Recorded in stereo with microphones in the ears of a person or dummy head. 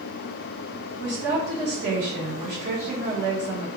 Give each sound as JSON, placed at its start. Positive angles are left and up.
{"t": 1.0, "sound": "a woman speaking", "side_deg": -55, "distance_m": 1.3}